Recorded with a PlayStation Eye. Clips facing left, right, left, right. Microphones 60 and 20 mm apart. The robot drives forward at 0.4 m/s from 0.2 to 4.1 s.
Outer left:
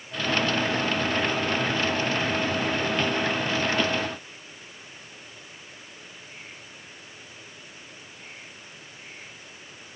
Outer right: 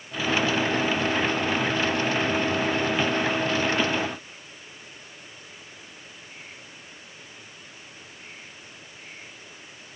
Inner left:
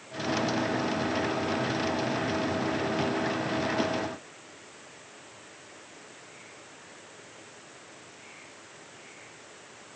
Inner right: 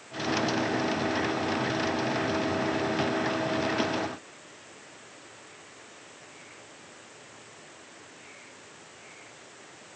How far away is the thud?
No thud in this recording.